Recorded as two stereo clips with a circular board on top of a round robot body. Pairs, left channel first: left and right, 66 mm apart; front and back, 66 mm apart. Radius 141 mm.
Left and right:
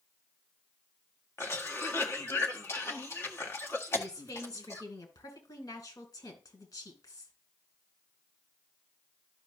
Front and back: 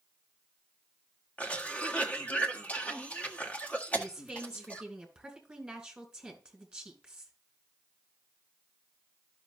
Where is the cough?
60° left, 1.8 m.